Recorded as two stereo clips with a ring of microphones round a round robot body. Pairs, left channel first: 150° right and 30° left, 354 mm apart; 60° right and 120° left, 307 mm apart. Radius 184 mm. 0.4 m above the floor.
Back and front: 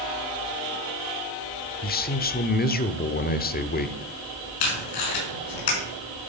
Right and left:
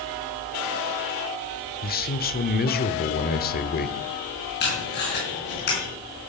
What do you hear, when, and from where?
1.8 s a man speaking: 100° right, 1.0 m
4.6 s tape being pulled: 120° right, 5.5 m